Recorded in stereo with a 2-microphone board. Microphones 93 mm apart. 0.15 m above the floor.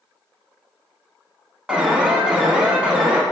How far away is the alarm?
About 0.8 m.